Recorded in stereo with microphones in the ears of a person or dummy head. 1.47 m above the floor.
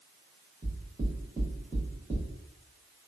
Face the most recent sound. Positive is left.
turn(degrees=-20)  # may be behind; listen again after turning